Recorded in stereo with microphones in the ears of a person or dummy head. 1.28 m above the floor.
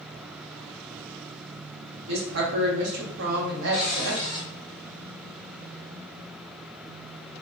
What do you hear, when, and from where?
2.1 s a woman speaking: 65° right (ahead or behind), 0.9 m
3.7 s a cupboard door: 30° left (ahead or behind), 0.8 m